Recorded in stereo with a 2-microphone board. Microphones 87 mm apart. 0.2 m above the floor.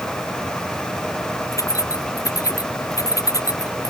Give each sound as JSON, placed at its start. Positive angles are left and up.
{"t": 1.5, "sound": "keys jangling", "side_deg": 40}